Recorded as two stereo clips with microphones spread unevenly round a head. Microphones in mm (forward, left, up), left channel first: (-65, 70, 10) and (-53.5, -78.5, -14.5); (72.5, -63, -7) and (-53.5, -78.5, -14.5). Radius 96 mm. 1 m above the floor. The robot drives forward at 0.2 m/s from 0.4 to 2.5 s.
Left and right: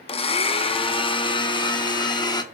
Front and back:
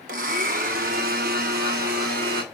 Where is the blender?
145° left, 0.8 m; by 2.4 s 160° left, 1.1 m.